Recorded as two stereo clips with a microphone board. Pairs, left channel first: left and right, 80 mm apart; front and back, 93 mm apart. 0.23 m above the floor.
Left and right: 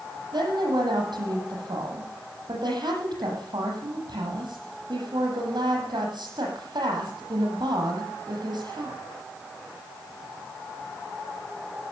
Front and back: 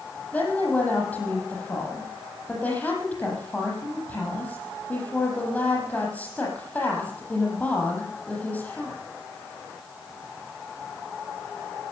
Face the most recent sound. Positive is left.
turn(degrees=-75)